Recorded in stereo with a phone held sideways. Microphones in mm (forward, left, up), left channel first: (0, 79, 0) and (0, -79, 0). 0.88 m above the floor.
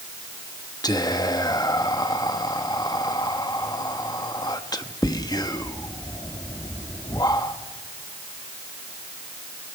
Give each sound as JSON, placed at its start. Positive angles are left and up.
{"t": 0.8, "sound": "whispering", "side_deg": 25, "distance_m": 0.9}